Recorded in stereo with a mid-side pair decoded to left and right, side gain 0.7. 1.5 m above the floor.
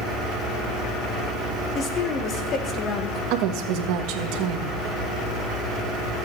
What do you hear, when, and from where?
1.8 s a woman speaking: 45° left, 1.6 m
3.3 s a woman speaking: 65° right, 1.3 m